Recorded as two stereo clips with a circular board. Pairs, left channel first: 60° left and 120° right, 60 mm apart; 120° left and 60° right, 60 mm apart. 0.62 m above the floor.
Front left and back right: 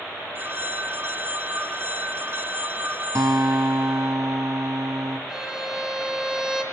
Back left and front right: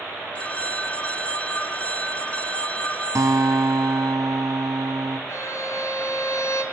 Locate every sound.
0.3 s a phone ringing: 175° right, 1.1 m
3.1 s a guitar: 90° right, 3 m
5.3 s a violin: 155° left, 3.5 m